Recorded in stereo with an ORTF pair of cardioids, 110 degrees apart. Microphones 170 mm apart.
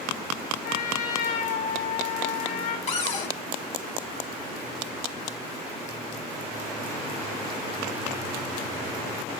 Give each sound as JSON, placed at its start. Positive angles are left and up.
{"t": 0.6, "sound": "a trumpet", "azimuth_deg": 60, "distance_m": 5.5}
{"t": 2.9, "sound": "a cupboard door", "azimuth_deg": 40, "distance_m": 2.5}